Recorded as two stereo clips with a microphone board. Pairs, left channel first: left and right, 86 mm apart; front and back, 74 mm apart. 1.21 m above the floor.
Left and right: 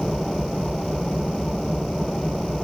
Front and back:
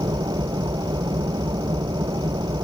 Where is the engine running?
Straight behind.